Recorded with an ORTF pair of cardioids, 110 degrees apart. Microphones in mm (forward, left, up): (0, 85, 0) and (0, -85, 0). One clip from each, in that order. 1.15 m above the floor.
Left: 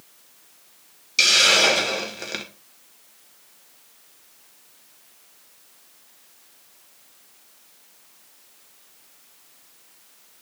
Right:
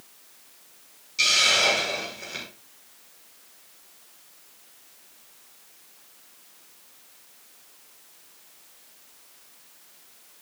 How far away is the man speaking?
No man speaking in this recording.